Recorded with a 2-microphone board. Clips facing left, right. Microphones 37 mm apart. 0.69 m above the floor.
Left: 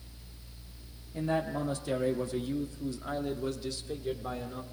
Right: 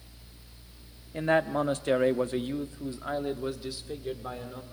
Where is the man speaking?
55° right (ahead or behind), 1.4 m; by 4.6 s 5° right (ahead or behind), 2 m.